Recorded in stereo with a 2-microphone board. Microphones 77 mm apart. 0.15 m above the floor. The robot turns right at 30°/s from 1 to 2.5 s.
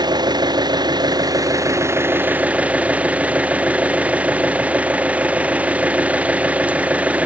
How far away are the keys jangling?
I don't hear keys jangling.